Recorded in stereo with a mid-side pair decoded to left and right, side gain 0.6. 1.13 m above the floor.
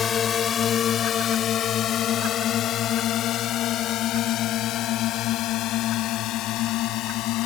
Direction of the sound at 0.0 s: 40° left.